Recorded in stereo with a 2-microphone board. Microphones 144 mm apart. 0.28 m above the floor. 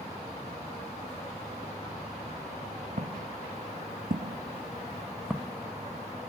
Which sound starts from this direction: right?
Footsteps, at 3.0 s.